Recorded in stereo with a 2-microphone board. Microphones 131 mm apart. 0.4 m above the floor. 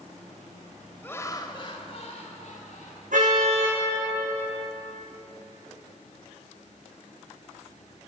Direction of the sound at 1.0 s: 15° left (ahead or behind).